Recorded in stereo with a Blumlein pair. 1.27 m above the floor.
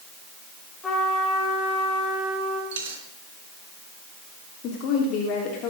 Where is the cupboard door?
No cupboard door in this recording.